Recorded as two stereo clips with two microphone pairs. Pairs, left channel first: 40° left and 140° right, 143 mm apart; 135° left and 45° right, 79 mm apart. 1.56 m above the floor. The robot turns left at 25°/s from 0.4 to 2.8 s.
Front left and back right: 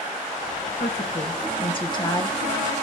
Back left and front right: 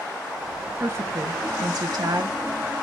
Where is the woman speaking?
10° left, 1.4 m; by 2.4 s 30° right, 1.4 m.